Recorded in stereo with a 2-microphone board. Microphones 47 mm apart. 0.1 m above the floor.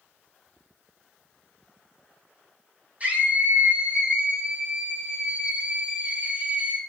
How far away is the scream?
About 4.5 m.